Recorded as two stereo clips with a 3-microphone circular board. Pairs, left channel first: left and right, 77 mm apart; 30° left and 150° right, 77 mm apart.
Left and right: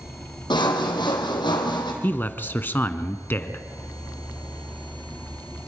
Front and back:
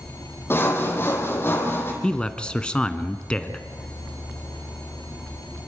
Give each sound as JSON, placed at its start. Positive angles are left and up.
{"t": 0.5, "sound": "sawing", "azimuth_deg": 90, "distance_m": 3.5}
{"t": 2.0, "sound": "a man speaking", "azimuth_deg": 90, "distance_m": 1.1}